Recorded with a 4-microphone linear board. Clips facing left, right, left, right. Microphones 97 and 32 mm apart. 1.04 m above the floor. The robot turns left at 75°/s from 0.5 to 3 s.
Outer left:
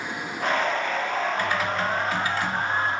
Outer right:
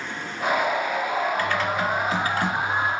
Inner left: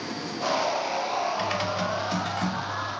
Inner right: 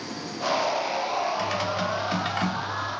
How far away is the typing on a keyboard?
About 1.2 m.